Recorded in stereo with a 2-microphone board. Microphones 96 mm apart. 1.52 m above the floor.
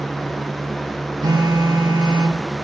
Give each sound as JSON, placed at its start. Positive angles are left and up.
{"t": 1.2, "sound": "a phone buzzing", "side_deg": -55, "distance_m": 2.5}